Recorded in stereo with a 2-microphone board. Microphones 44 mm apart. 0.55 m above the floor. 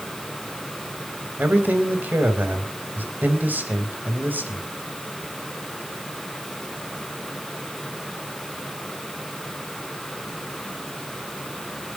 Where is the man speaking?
45° right (ahead or behind), 3 m.